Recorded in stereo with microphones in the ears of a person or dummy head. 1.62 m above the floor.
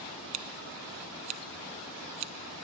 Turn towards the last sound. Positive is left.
turn(degrees=-45)  # may be behind; listen again after turning